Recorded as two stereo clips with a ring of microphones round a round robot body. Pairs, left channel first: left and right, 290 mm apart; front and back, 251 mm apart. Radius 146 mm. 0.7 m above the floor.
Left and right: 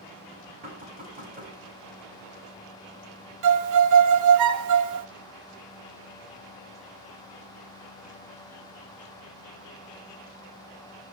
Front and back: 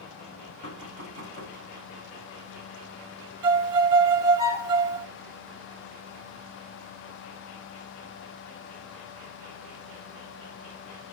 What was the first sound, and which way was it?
Knocking, 25° right.